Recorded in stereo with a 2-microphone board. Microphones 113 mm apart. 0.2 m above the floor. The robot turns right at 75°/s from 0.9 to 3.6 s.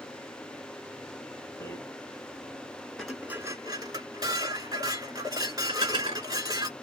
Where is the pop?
No pop in this recording.